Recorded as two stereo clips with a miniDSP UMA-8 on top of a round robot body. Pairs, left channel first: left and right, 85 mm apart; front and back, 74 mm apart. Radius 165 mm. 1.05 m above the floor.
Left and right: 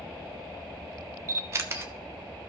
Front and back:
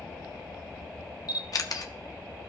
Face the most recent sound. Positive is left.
turn(degrees=-35)